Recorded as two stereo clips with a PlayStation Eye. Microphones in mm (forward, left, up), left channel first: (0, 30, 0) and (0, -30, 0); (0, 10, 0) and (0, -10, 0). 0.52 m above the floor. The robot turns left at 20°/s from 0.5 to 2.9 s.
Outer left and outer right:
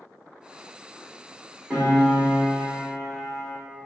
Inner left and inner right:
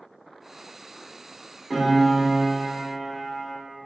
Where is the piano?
20° right (ahead or behind), 1.0 m; by 3.5 s centre (ahead or behind), 1.0 m.